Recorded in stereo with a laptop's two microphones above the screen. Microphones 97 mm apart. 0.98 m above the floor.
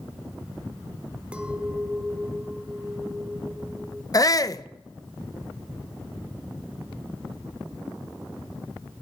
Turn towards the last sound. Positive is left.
turn(degrees=35)  # may be behind; listen again after turning